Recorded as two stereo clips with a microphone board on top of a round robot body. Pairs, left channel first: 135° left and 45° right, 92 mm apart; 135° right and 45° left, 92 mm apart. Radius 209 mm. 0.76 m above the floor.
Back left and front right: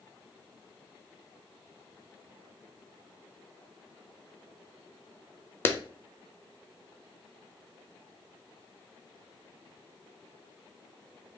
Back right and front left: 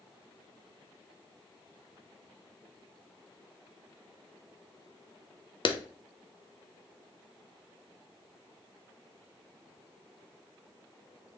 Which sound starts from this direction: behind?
A clap, at 5.7 s.